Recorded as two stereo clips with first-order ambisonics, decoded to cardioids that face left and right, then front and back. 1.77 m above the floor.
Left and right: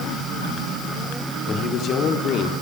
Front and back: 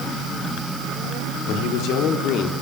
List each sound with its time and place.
1.5 s a man speaking: 35° left, 5 m; by 2.5 s 40° left, 4 m